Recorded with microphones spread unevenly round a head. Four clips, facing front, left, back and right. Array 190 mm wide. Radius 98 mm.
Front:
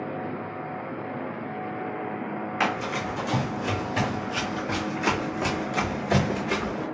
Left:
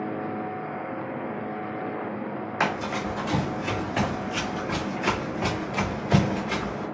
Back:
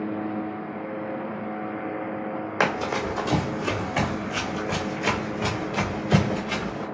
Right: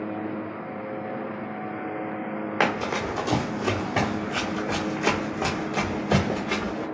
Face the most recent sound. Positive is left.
turn(degrees=-55)